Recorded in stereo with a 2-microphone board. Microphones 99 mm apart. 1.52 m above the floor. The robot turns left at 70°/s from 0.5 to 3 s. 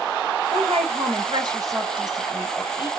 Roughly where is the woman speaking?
Ahead right.